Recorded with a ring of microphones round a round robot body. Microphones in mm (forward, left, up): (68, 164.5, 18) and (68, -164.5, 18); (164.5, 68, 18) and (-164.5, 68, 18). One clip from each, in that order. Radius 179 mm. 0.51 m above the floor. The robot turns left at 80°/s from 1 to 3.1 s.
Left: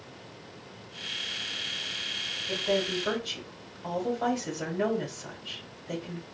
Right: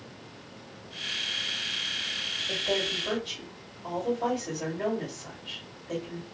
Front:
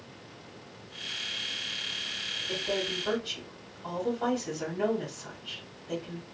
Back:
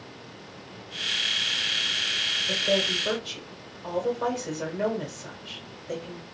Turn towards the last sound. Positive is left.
turn(degrees=110)